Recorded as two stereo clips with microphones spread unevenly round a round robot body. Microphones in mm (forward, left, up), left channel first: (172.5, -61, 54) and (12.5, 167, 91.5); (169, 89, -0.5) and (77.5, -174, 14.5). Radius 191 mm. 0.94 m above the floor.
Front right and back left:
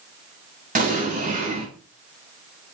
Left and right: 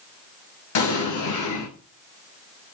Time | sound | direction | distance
0.8 | an explosion | 60° left | 7 m